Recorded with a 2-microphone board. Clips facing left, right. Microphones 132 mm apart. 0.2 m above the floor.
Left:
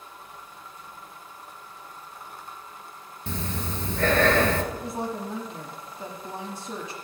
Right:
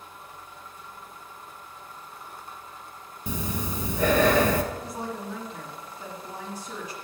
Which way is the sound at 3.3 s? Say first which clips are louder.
Right 1 dB; 15° right (ahead or behind).